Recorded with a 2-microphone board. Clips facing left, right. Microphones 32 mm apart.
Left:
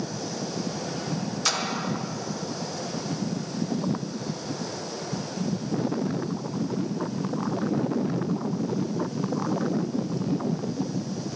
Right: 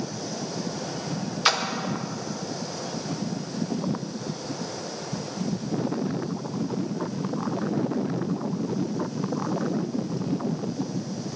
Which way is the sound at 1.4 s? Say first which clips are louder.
Right 5 dB; 30° right (ahead or behind).